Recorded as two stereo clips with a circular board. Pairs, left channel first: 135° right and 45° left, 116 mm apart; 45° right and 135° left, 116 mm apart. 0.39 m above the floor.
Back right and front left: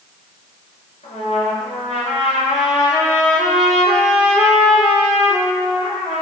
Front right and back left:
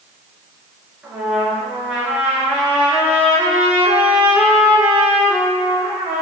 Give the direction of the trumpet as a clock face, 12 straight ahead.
5 o'clock.